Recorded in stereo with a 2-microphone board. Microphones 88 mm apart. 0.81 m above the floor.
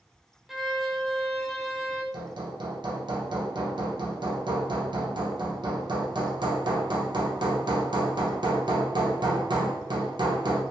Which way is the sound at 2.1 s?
60° right (ahead or behind).